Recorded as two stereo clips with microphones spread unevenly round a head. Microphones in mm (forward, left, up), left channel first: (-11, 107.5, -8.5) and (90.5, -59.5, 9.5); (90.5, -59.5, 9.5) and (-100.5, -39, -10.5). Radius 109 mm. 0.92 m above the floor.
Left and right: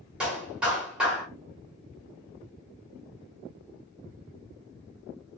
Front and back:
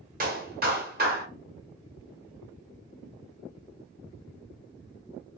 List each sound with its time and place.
0.2 s a clap: 145° right, 1.3 m